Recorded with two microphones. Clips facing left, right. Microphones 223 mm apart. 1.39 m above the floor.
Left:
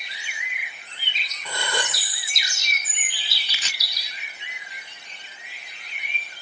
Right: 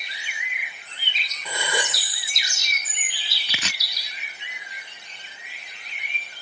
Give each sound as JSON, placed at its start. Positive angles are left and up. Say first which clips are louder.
{"t": 1.4, "sound": "a gasp", "louder": "right 1 dB", "side_deg": -10}
{"t": 3.5, "sound": "chopping", "louder": "right 11 dB", "side_deg": -70}